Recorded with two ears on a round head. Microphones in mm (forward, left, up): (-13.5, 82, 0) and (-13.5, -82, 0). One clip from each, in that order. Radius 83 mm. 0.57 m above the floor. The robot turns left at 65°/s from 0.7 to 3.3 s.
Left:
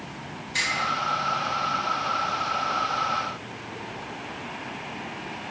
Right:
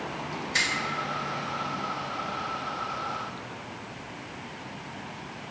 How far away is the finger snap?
About 1.5 m.